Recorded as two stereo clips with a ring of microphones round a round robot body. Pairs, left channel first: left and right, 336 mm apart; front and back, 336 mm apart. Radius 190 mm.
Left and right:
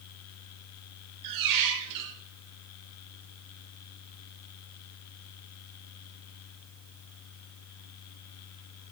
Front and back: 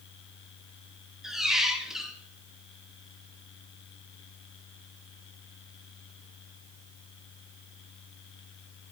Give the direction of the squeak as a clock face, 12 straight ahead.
3 o'clock.